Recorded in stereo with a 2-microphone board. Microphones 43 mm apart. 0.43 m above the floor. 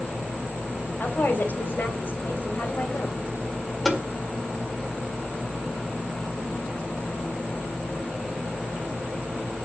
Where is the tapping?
5° left (ahead or behind), 1.7 m.